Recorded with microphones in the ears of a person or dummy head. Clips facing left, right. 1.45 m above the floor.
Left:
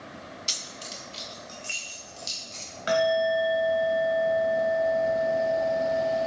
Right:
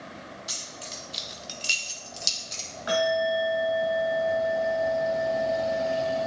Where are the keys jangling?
35° left (ahead or behind), 0.9 m; by 2.7 s 70° right (ahead or behind), 2 m.